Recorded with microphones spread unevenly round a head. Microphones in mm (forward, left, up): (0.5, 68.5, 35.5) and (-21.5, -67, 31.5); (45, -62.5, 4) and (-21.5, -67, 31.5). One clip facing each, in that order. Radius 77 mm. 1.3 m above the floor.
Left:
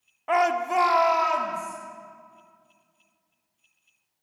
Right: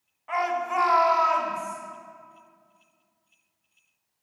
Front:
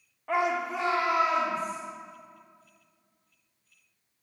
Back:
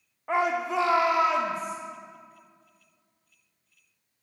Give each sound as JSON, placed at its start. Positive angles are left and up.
{"t": 0.3, "sound": "a shout", "azimuth_deg": 100, "distance_m": 0.6}